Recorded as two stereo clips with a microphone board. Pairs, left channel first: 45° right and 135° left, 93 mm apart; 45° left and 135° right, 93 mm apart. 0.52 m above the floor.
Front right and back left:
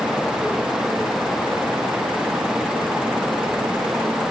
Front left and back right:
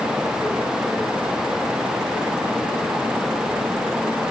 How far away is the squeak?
No squeak in this recording.